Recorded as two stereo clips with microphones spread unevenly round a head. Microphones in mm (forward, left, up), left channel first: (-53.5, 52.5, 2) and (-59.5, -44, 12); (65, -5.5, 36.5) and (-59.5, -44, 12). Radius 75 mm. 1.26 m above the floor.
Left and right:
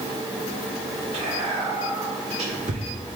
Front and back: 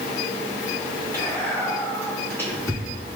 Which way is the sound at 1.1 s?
65° right.